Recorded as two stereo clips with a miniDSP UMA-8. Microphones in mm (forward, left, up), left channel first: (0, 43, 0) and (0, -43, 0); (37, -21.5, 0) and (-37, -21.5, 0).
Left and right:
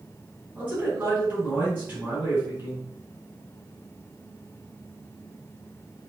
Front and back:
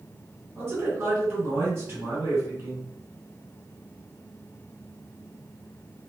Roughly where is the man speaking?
Behind right.